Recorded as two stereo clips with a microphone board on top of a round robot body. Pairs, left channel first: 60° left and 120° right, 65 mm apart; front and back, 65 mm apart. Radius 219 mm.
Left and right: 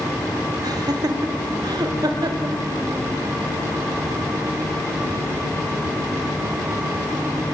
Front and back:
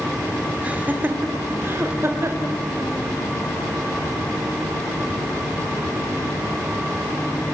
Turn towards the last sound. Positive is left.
turn(degrees=-135)